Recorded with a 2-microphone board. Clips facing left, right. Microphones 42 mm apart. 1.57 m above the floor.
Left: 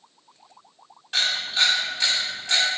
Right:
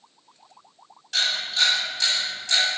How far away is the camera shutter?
About 1.6 m.